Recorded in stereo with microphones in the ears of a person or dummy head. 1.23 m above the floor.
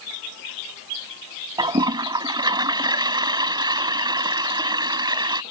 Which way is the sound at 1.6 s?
15° right (ahead or behind).